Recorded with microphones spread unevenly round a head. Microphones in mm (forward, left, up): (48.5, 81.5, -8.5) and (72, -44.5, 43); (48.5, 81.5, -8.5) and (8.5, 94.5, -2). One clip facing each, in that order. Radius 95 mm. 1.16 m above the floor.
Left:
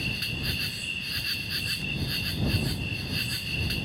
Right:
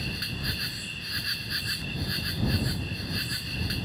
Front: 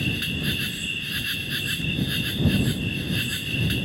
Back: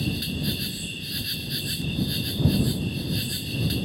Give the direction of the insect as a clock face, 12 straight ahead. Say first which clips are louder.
Even, front 2 dB; 11 o'clock.